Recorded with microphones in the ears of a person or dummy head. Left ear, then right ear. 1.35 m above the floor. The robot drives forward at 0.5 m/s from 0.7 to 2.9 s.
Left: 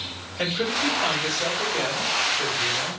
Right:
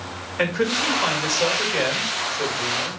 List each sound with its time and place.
0.4 s a man speaking: 55° right (ahead or behind), 5.5 m; by 3.0 s 50° right (ahead or behind), 6.5 m